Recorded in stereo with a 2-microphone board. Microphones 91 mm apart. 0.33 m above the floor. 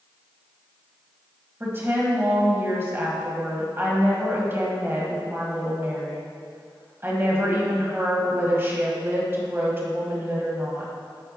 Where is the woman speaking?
25° right (ahead or behind), 1.5 m.